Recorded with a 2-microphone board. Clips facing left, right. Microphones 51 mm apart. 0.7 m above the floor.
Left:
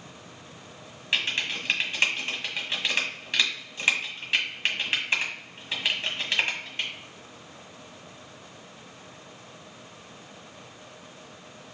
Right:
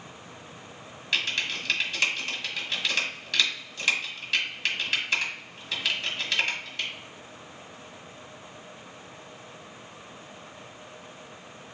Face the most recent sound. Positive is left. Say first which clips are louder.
# left 1 dB
turn(degrees=25)  # may be behind; listen again after turning